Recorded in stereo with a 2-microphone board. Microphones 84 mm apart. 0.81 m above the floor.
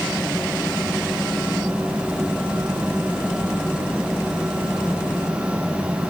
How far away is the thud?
I don't hear a thud.